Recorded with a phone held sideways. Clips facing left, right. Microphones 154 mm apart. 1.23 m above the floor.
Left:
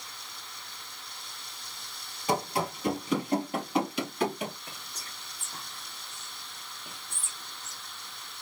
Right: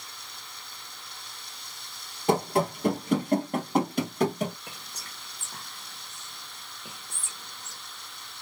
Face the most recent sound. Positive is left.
turn(degrees=-70)  # may be behind; listen again after turning